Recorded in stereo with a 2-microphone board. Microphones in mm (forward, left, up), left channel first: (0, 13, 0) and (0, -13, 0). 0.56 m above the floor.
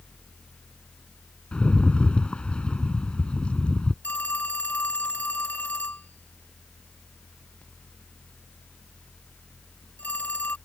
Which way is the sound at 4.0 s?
80° left.